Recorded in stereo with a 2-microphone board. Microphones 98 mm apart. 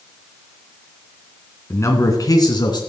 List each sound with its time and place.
1.7 s a man speaking: 30° left (ahead or behind), 2.5 m; by 2.8 s 50° left (ahead or behind), 3 m